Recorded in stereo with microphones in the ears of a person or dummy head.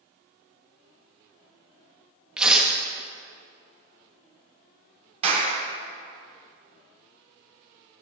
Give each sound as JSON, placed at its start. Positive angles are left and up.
{"t": 2.4, "sound": "tearing paper", "side_deg": -10, "distance_m": 1.4}
{"t": 5.2, "sound": "a clap", "side_deg": -40, "distance_m": 3.0}